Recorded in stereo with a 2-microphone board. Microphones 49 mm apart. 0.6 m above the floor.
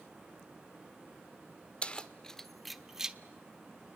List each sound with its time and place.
1.8 s keys jangling: 25° left (ahead or behind), 1.2 m; by 3.2 s 15° right (ahead or behind), 1.1 m